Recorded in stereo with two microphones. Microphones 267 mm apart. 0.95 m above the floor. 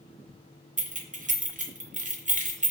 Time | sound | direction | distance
0.8 | keys jangling | 30° right (ahead or behind) | 0.5 m